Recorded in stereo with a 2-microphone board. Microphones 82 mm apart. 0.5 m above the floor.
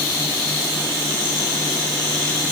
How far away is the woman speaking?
I don't hear a woman speaking.